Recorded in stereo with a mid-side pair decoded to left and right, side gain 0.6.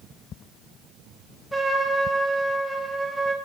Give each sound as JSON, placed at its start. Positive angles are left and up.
{"t": 1.5, "sound": "a trumpet", "azimuth_deg": -10, "distance_m": 2.0}